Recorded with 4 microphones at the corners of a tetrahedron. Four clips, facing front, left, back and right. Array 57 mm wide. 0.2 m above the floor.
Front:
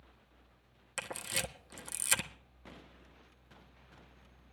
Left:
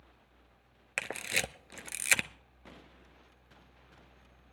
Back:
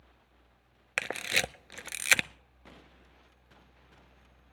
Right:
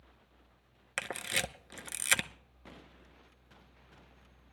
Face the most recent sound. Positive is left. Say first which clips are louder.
# left 1 dB, back 9 dB
turn(degrees=175)